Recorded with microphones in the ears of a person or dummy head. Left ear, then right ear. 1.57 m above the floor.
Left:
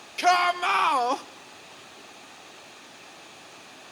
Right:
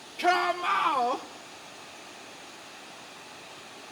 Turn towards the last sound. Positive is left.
turn(degrees=80)